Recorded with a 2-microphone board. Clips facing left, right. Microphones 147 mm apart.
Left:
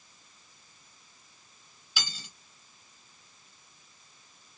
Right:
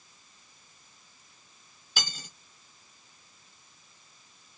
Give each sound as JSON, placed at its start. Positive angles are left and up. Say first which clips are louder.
{"t": 2.0, "sound": "cutlery clinking", "louder": "right 2 dB", "side_deg": -45, "distance_m": 0.7}